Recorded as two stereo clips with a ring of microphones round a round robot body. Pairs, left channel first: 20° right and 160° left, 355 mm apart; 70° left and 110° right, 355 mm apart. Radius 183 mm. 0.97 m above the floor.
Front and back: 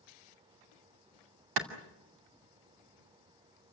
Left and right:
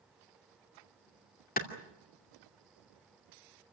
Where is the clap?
135° left, 2.5 m.